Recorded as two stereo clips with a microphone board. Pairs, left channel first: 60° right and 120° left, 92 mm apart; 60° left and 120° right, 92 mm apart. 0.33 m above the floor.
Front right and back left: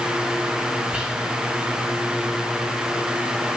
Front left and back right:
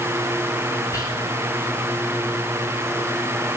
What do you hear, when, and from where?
0.9 s whispering: 50° left, 1.2 m